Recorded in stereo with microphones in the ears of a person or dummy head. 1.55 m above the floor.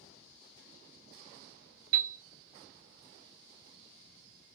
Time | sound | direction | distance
1.9 | a piano | 50° right (ahead or behind) | 1.0 m